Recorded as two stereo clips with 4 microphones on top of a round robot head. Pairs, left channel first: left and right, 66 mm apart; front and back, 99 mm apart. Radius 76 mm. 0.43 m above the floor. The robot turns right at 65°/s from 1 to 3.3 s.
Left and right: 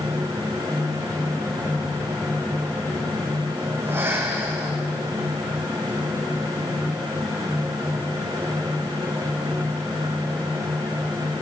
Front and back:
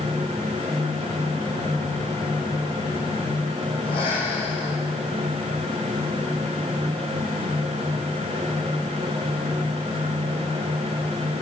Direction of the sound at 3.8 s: 40° right.